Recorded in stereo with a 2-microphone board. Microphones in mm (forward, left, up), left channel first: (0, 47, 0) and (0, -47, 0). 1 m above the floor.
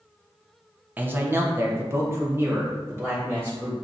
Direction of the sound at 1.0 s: 20° right (ahead or behind).